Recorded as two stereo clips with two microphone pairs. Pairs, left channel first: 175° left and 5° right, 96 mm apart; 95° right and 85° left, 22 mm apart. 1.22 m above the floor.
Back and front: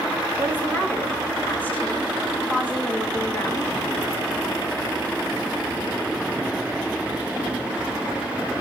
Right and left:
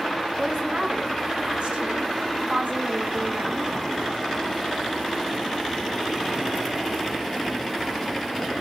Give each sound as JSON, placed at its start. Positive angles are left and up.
{"t": 0.4, "sound": "a woman speaking", "azimuth_deg": 100, "distance_m": 1.8}